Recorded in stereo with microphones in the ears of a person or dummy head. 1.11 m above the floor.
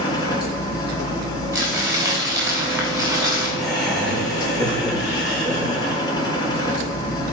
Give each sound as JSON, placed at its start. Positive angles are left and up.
{"t": 0.0, "sound": "a machine running", "side_deg": 25, "distance_m": 2.5}
{"t": 1.5, "sound": "crumpling", "side_deg": -20, "distance_m": 3.0}
{"t": 3.6, "sound": "laughter", "side_deg": 0, "distance_m": 4.5}